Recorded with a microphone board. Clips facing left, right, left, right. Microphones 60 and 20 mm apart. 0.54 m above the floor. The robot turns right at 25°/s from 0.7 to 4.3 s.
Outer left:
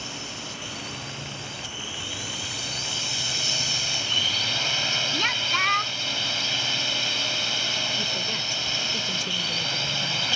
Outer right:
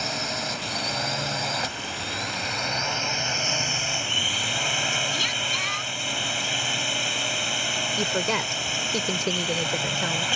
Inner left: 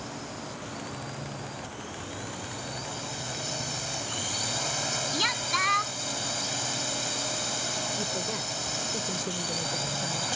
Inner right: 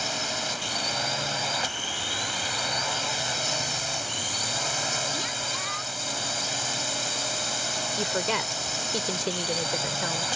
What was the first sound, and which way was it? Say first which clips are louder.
A drone: outer right 7 dB, inner right 10 dB; 105° right.